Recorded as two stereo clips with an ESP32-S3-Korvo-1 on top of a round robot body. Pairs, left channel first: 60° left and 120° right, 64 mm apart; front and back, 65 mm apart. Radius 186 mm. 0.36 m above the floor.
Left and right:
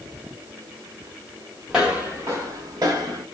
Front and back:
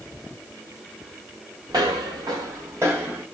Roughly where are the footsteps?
Behind left.